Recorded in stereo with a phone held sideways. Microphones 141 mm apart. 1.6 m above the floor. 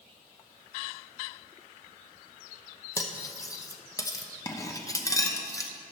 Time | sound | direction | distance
3.0 | cutlery clinking | 25° left (ahead or behind) | 0.8 m